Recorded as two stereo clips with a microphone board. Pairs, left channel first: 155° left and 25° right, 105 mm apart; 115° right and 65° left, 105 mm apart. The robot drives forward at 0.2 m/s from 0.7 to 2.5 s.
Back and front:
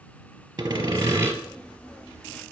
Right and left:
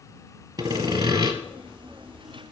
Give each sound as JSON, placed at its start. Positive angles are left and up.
{"t": 0.6, "sound": "sawing", "azimuth_deg": 30, "distance_m": 1.3}